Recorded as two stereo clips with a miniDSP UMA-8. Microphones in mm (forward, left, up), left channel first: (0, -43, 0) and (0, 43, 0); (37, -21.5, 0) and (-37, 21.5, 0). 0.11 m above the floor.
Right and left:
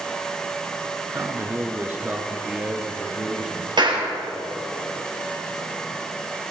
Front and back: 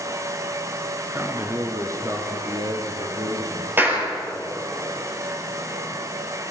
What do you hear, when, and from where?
1.1 s a man speaking: 105° left, 1.2 m; by 4.7 s straight behind, 3 m
3.8 s a clap: 85° left, 2.5 m